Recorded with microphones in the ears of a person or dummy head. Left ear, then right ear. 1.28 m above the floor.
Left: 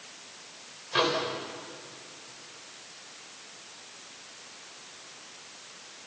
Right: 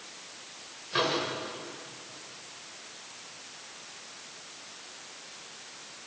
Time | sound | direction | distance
0.9 | a microwave | 20° left (ahead or behind) | 4.5 m